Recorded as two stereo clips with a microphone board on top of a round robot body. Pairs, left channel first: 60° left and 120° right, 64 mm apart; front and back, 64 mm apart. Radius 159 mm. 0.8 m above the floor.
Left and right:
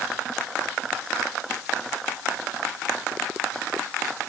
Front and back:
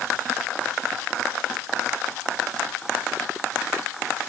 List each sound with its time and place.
Only background noise.